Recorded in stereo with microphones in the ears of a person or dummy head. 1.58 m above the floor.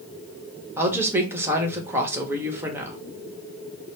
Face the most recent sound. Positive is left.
turn(degrees=-15)  # may be behind; listen again after turning